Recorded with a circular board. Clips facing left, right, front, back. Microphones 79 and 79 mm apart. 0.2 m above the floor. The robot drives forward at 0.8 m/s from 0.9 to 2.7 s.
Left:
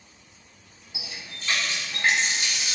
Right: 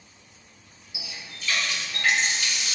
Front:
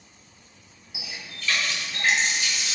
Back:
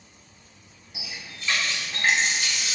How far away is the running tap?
About 0.8 m.